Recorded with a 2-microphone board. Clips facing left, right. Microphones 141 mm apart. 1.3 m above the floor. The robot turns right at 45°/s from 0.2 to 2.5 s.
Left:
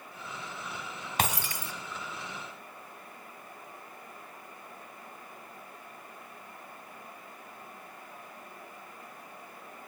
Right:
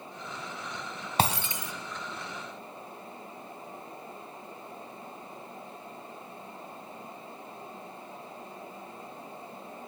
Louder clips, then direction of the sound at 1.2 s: Right 4 dB; 30° right (ahead or behind).